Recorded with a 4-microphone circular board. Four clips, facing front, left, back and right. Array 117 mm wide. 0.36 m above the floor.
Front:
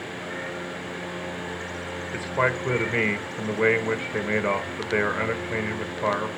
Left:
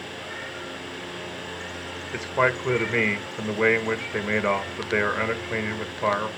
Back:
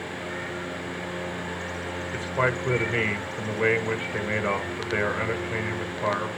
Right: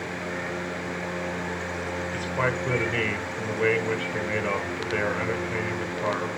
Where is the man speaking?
70° left, 1.2 m.